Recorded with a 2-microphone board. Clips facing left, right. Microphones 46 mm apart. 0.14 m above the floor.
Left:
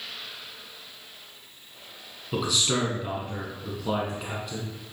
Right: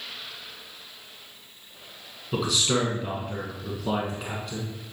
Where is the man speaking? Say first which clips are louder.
Right 1 dB; centre (ahead or behind), 1.3 m.